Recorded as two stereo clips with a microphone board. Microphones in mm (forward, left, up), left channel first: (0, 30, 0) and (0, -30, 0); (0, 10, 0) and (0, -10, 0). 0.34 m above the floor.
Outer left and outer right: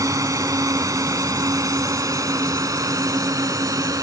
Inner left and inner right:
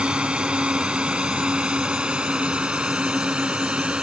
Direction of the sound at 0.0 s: 65° right (ahead or behind).